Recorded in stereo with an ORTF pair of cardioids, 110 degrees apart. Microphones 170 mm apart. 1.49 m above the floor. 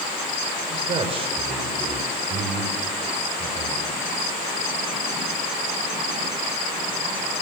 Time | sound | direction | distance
0.7 | a man speaking | 35° right | 5.5 m